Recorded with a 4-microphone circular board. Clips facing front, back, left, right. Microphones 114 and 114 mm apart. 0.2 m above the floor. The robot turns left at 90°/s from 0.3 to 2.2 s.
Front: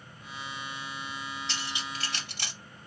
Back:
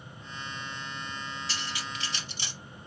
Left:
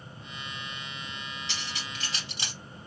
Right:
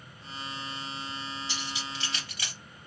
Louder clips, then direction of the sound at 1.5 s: Even, right 2 dB; 95° left.